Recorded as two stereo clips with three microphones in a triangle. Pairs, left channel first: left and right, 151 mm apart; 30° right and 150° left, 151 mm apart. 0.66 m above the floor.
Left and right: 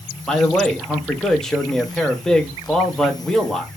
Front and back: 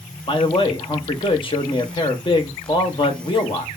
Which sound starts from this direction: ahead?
A man speaking, at 0.3 s.